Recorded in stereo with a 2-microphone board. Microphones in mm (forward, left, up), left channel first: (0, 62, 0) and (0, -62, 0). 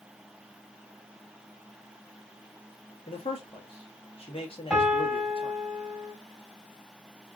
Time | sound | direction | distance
3.1 | a man speaking | 50° left (ahead or behind) | 1.5 m
4.7 | a piano | centre (ahead or behind) | 2.0 m